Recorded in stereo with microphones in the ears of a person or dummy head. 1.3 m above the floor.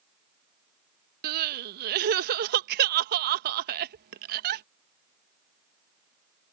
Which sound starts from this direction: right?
Crying, at 1.2 s.